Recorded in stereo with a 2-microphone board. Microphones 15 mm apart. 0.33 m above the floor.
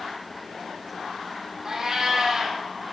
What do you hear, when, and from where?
1.6 s a cat meowing: 35° right (ahead or behind), 3 m